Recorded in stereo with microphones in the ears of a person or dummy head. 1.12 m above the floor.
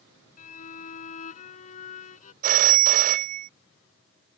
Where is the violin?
45° left (ahead or behind).